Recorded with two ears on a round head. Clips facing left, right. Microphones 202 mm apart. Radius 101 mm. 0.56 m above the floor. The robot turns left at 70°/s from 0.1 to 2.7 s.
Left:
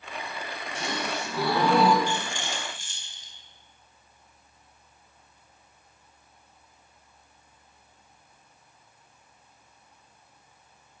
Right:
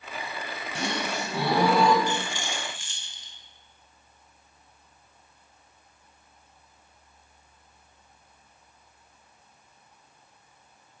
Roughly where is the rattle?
Centre.